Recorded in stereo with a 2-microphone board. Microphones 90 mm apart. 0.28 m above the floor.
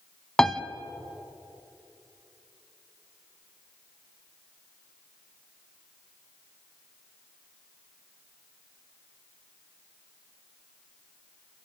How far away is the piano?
About 0.7 m.